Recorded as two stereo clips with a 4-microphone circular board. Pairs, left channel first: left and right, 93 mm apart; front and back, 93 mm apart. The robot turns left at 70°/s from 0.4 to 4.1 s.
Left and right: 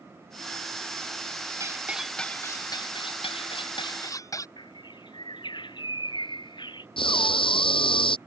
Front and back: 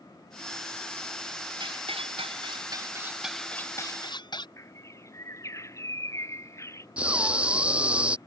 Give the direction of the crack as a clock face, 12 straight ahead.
No crack in this recording.